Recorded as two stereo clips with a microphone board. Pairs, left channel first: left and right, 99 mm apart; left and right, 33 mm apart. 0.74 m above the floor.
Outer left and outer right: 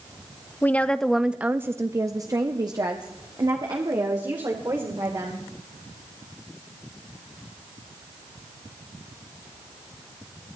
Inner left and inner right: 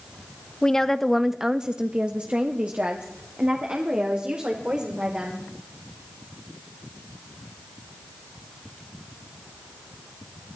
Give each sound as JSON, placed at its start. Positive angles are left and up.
{"t": 0.6, "sound": "a woman speaking", "side_deg": 20, "distance_m": 0.7}